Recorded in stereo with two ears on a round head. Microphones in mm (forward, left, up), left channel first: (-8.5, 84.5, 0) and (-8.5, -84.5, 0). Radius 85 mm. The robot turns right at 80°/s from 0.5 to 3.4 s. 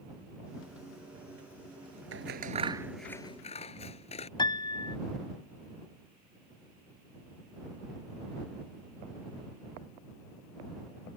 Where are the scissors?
70° right (ahead or behind); by 4.3 s 35° left (ahead or behind).